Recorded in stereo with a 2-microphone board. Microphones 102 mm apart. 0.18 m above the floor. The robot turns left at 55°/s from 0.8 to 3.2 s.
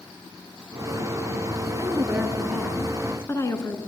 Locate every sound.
1.8 s a woman speaking: 135° right, 2.5 m; by 3.8 s 145° left, 2.5 m